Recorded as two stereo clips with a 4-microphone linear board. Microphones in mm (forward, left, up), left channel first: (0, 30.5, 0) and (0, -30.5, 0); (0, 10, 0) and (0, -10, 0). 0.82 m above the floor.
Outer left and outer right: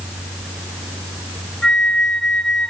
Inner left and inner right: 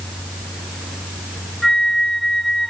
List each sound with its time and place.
1.6 s a flute: 10° left (ahead or behind), 1.2 m